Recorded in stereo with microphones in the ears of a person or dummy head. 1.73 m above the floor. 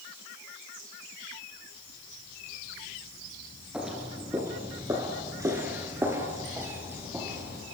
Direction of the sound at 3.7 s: 5° right (ahead or behind).